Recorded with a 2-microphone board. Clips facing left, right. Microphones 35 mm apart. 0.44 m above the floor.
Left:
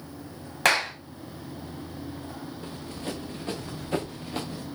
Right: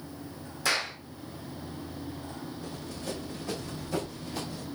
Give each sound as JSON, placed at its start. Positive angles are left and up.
{"t": 0.7, "sound": "a clap", "side_deg": 70, "distance_m": 2.5}
{"t": 2.6, "sound": "running footsteps", "side_deg": 45, "distance_m": 5.0}